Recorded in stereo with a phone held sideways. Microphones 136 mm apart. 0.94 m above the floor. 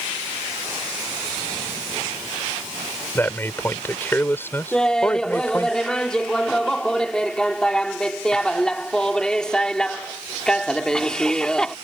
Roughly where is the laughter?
Centre.